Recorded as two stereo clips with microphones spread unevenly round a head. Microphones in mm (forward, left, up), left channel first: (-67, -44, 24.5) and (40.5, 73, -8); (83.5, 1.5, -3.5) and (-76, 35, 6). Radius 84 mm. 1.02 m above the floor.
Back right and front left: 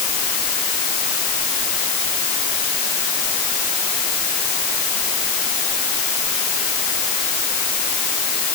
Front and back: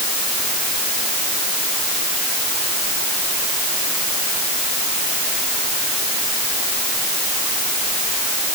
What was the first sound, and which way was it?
Only background noise.